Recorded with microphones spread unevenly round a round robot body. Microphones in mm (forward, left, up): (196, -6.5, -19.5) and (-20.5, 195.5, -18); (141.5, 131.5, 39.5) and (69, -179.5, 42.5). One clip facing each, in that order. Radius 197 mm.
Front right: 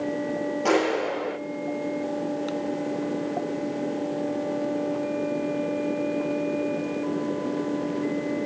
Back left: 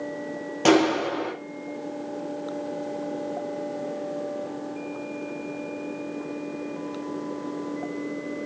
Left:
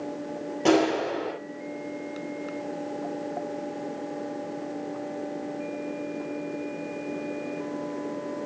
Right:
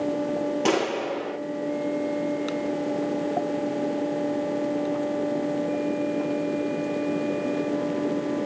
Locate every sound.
0.7 s a clap: straight behind, 9.5 m